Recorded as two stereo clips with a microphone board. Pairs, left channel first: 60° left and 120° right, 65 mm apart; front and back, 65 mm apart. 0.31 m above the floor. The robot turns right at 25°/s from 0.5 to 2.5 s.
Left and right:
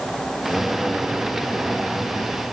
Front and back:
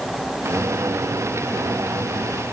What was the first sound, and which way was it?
Only background noise.